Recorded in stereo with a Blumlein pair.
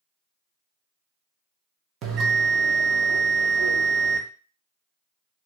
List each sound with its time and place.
2.0 s a bell: 30° right, 0.7 m